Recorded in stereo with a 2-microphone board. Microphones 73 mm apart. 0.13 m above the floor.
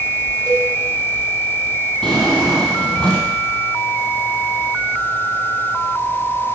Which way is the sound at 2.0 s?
15° left (ahead or behind).